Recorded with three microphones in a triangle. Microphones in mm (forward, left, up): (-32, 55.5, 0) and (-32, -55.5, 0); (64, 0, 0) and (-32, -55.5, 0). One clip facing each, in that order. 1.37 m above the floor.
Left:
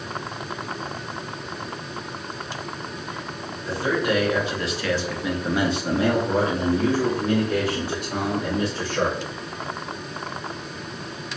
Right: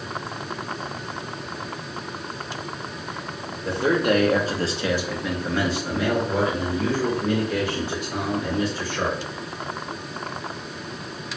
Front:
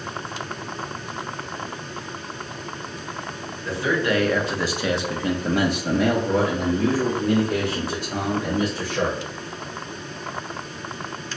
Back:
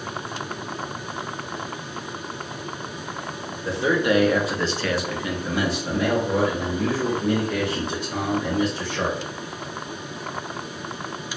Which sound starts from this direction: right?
A man speaking, at 3.6 s.